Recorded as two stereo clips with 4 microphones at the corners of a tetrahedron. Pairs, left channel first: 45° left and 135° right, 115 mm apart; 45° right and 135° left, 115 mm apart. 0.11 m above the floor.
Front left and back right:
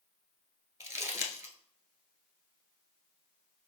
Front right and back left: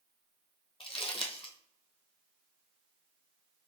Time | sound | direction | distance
0.8 | crumpling | 70° right | 1.0 m